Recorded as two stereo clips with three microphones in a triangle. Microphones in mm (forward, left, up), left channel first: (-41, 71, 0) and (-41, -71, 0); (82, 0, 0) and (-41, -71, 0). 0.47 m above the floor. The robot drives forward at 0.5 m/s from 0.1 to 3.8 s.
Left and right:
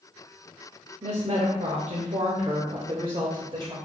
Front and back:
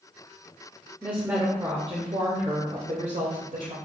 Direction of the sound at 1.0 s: 75° right.